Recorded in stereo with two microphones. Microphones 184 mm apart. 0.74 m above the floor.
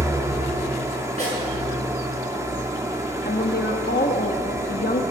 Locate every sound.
0.0 s an engine running: 15° right (ahead or behind), 1.1 m
1.2 s a snare drum: 35° right (ahead or behind), 6 m
3.2 s a woman speaking: 55° left (ahead or behind), 0.8 m